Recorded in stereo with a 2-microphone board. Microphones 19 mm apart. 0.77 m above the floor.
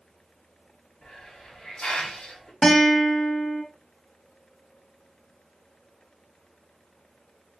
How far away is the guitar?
About 1.0 m.